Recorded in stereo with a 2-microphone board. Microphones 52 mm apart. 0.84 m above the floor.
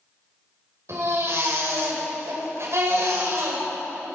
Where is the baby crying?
60° right (ahead or behind), 3 m.